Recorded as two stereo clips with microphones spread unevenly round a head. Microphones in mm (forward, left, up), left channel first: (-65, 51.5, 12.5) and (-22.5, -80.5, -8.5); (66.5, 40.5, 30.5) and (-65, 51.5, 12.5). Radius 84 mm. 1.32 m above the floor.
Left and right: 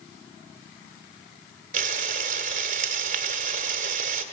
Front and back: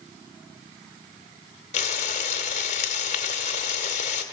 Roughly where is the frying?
Ahead right.